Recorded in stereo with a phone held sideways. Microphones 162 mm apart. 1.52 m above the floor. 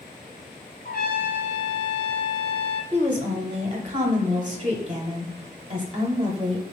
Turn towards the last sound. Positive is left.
turn(degrees=-30)  # may be behind; listen again after turning